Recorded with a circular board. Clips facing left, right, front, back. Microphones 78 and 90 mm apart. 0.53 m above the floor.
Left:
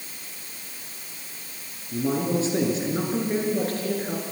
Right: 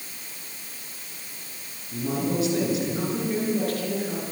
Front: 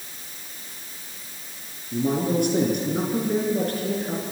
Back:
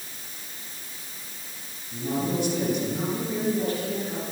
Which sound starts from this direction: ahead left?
A man speaking, at 1.9 s.